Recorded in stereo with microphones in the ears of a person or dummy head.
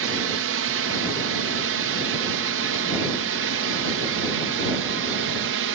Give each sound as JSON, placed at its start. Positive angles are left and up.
{"t": 0.0, "sound": "a drone", "side_deg": -65}